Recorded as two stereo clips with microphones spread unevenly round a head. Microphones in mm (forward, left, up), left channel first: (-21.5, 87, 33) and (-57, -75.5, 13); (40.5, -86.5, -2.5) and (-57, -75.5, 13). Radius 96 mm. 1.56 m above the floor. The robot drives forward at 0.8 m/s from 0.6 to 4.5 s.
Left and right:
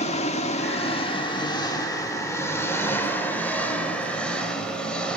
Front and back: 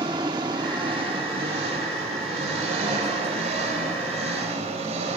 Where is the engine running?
120° left, 1.9 m; by 5.2 s 160° left, 4.5 m.